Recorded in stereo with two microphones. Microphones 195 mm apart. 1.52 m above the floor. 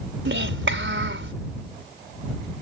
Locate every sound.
0.2 s a child speaking: 80° right